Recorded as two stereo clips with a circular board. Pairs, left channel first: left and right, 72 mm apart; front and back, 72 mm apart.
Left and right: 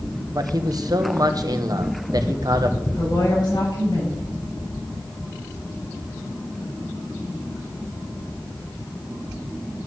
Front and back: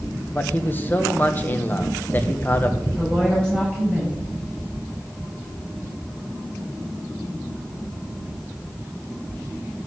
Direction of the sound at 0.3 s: 65° right.